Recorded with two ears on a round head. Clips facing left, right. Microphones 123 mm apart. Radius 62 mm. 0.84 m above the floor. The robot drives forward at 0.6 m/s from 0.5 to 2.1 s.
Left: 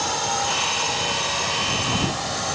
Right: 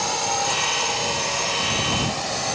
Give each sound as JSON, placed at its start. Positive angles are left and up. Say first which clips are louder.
{"t": 0.0, "sound": "a drone", "louder": "even", "side_deg": -10}